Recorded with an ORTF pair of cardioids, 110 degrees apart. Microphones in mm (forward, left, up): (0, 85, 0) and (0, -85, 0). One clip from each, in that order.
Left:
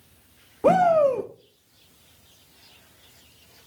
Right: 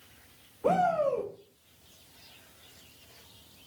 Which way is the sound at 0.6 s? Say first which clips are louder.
Left 8 dB; 40° left.